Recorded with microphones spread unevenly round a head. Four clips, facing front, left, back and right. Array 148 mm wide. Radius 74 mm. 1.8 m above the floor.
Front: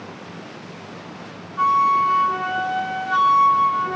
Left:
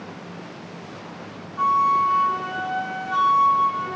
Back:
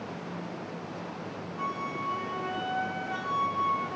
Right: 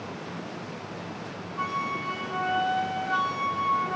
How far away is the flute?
About 4.5 m.